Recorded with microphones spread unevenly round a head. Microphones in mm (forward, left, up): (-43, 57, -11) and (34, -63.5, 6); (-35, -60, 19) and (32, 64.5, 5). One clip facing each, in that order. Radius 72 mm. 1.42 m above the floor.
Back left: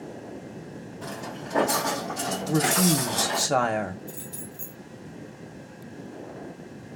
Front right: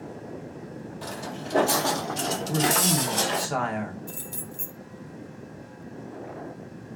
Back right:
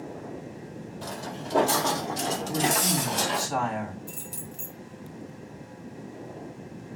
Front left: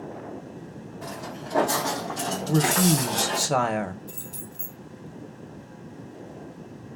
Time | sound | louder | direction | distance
1.0 | footsteps | even, even | 80° right | 2.5 m
2.5 | a woman speaking | back left 3 dB, front left 7 dB | 85° left | 1.0 m
4.1 | keys jangling | even, even | 85° right | 2.5 m